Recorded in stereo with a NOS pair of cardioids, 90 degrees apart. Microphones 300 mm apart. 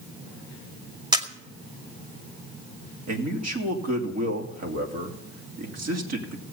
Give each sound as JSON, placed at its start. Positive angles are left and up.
{"t": 1.1, "sound": "a camera shutter", "azimuth_deg": -15, "distance_m": 2.0}
{"t": 3.1, "sound": "a man speaking", "azimuth_deg": -60, "distance_m": 3.0}